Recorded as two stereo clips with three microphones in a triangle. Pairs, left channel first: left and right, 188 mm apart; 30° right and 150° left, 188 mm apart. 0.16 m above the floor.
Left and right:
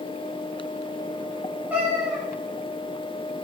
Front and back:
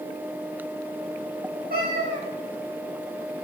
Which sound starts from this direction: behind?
A cat meowing, at 1.7 s.